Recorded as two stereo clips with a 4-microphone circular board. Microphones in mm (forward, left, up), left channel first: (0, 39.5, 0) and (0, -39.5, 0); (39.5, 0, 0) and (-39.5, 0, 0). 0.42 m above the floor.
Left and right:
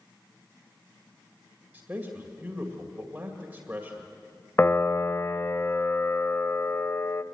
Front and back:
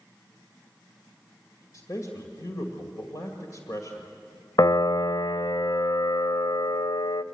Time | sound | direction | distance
1.7 | a man speaking | 25° right | 2 m
4.6 | a piano | 30° left | 0.5 m